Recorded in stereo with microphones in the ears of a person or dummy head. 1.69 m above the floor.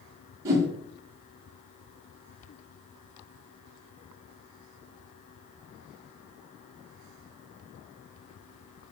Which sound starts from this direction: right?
A whoosh, at 0.5 s.